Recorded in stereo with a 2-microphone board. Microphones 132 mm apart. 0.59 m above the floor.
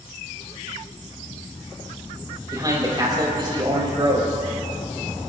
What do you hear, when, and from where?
2.5 s a man speaking: 25° right (ahead or behind), 3.5 m; by 4.3 s 40° right (ahead or behind), 4 m